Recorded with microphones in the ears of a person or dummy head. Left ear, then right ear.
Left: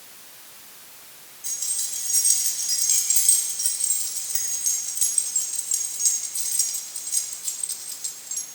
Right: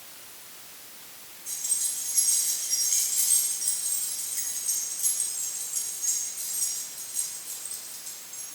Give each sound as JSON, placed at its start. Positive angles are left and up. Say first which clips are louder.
{"t": 1.4, "sound": "keys jangling", "louder": "left 3 dB", "side_deg": 75, "distance_m": 7.0}